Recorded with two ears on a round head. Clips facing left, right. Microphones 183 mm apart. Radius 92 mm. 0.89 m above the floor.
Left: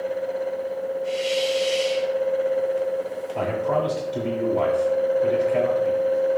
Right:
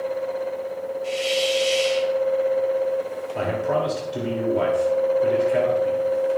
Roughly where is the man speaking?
Centre.